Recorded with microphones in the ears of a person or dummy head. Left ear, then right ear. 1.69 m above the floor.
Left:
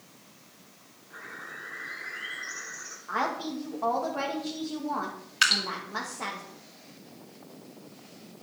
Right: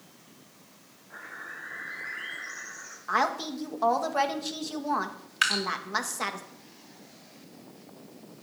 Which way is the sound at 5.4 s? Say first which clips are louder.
Left 3 dB; centre (ahead or behind).